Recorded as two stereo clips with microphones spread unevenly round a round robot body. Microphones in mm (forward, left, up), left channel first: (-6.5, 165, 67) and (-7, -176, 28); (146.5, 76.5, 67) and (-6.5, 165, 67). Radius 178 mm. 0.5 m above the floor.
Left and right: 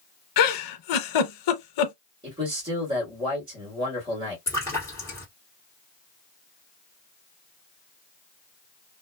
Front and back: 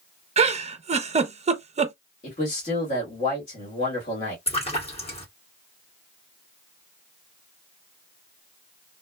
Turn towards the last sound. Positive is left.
turn(degrees=5)